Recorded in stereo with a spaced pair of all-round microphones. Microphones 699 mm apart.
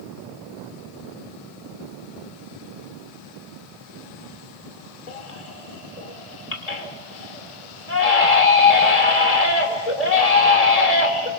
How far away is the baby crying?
About 2.5 m.